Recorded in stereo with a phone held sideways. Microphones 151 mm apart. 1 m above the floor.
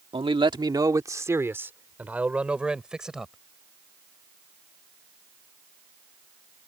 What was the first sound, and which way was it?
A man speaking, 40° right (ahead or behind).